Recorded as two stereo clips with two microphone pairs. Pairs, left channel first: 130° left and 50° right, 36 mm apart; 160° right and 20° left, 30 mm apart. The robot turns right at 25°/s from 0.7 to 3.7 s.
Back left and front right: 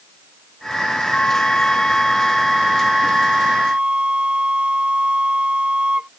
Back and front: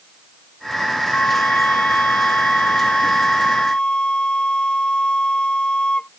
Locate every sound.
1.1 s a flute: 170° right; by 6.1 s 105° right